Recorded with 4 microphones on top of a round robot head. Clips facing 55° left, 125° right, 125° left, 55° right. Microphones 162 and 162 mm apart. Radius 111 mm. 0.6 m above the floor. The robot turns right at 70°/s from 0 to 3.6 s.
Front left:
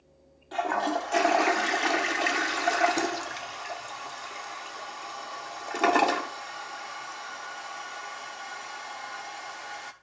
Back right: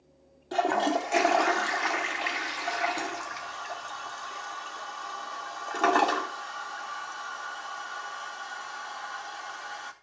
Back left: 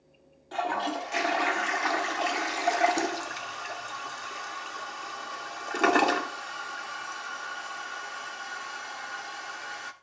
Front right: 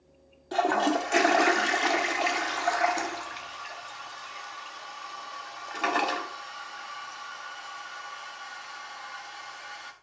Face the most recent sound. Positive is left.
turn(degrees=125)